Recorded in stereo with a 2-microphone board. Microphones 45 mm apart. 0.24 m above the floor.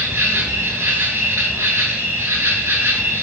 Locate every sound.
0.0 s an insect: 70° right (ahead or behind), 0.8 m